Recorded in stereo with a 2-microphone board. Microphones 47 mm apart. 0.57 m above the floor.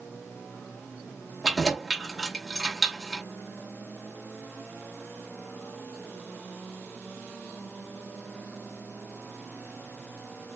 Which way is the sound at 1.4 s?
5° right (ahead or behind).